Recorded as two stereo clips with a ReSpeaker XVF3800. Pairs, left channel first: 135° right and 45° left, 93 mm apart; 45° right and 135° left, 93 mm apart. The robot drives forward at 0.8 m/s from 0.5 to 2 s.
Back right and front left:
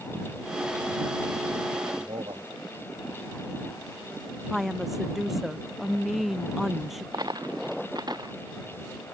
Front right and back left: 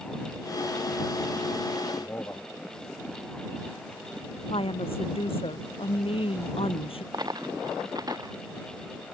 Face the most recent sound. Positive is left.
turn(degrees=90)